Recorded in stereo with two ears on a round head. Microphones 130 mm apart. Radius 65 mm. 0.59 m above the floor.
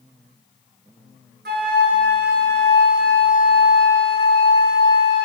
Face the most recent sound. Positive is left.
turn(degrees=-80)